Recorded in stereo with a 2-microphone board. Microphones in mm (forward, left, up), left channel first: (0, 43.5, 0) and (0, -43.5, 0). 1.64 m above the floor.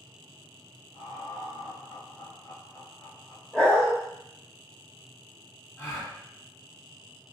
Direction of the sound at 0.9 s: 50° left (ahead or behind).